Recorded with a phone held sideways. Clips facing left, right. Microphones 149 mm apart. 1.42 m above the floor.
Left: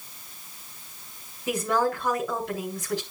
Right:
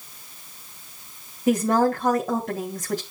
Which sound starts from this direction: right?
A woman speaking, at 1.5 s.